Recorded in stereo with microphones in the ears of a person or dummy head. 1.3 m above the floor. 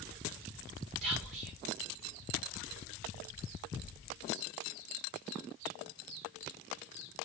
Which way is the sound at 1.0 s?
40° right (ahead or behind).